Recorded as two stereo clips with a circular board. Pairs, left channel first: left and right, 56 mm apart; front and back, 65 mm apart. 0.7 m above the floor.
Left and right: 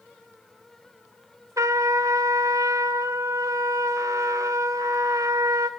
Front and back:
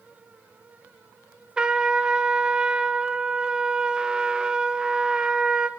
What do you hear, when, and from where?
1.6 s a trumpet: 105° right, 0.9 m